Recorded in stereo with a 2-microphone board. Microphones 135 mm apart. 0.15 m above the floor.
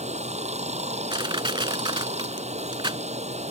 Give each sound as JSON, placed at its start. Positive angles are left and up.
{"t": 0.0, "sound": "running water", "side_deg": -55}
{"t": 1.1, "sound": "crushing", "side_deg": -35}